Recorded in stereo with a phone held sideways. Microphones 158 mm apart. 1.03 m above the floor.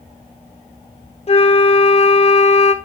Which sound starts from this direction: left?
A flute, at 1.3 s.